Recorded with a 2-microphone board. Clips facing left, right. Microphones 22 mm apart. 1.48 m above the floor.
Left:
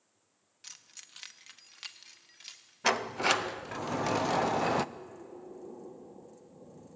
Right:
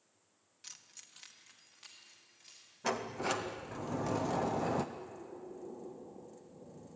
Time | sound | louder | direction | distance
0.6 | keys jangling | left 3 dB | 10° left (ahead or behind) | 1.2 m
2.8 | a sliding door | left 7 dB | 50° left (ahead or behind) | 0.6 m
5.0 | breathing | left 1 dB | 40° left (ahead or behind) | 8 m